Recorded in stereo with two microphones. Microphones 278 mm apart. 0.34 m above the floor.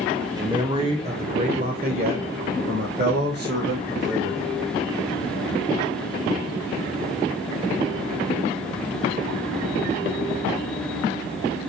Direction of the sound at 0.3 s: 15° right (ahead or behind).